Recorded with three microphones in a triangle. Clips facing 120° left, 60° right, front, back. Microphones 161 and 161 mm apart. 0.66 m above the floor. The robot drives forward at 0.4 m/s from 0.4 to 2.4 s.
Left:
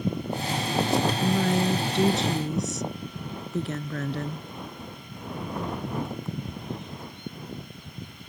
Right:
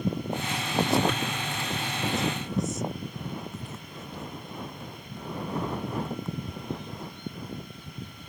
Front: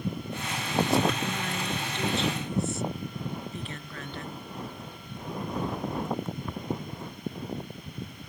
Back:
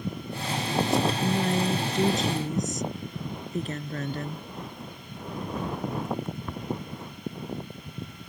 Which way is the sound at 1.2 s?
130° left.